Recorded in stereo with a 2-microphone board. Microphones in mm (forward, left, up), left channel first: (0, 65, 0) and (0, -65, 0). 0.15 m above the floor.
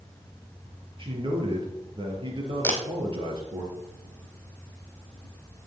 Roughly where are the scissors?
I don't hear scissors.